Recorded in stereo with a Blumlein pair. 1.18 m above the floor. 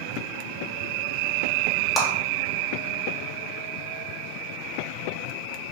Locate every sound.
2.0 s a clap: 10° left, 0.8 m